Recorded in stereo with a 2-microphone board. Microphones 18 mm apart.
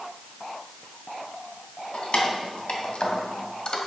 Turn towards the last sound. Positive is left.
turn(degrees=50)  # may be behind; listen again after turning